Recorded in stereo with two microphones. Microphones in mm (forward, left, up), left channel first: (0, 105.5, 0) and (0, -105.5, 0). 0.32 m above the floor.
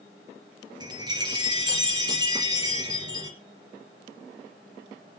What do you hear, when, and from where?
0.8 s a chime: 20° right (ahead or behind), 3 m